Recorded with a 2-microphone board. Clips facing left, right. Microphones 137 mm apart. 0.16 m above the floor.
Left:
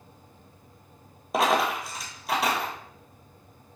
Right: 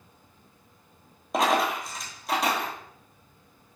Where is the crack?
No crack in this recording.